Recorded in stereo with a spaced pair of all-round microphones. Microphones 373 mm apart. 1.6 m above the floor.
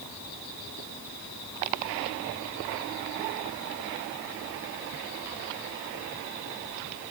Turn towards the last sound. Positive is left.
No sound to turn to.